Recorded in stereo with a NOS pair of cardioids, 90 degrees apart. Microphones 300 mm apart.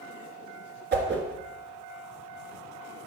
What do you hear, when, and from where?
0.9 s a whoosh: 35° right, 1.6 m